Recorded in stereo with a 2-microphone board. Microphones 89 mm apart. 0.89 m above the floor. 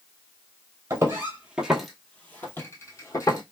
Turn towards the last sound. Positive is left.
turn(degrees=45)  # may be behind; listen again after turning